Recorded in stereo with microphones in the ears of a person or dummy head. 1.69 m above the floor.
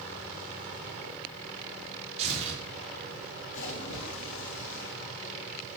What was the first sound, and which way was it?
Tearing paper, 35° right (ahead or behind).